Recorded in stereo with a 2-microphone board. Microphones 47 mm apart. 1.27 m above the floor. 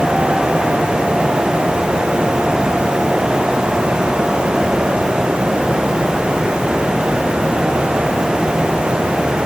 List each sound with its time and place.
Only background noise.